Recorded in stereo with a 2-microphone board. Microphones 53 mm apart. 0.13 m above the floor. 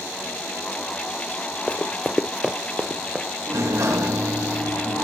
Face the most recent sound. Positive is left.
turn(degrees=-65)  # may be behind; listen again after turning